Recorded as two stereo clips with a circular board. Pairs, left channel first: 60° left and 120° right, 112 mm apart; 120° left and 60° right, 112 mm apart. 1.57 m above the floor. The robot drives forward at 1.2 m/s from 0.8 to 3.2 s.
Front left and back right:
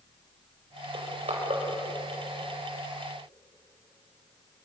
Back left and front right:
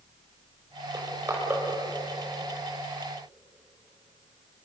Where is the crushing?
125° right, 6.5 m; by 1.6 s 130° right, 7 m.